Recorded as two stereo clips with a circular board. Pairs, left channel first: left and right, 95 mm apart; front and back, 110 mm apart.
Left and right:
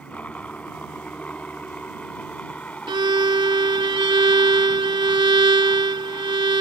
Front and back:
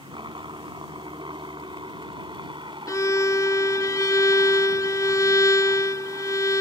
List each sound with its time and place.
0.0 s a helicopter: 160° left
2.9 s a violin: 60° right